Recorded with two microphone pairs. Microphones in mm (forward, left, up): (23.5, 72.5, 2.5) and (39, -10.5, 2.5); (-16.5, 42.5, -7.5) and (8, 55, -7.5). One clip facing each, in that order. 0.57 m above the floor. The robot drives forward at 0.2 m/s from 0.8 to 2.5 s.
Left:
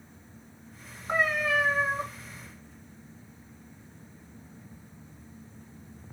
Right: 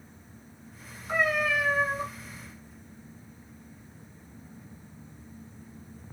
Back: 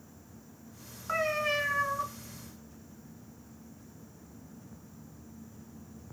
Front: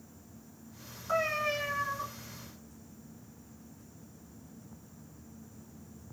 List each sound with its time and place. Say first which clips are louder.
1.1 s a cat meowing: even, back 1 dB; 145° left, 1.5 m; by 2.0 s 150° left, 1.6 m